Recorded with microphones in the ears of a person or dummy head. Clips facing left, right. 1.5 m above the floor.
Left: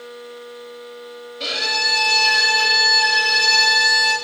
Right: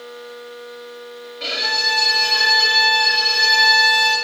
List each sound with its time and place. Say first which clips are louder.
1.4 s a violin: even; 50° left (ahead or behind), 6 m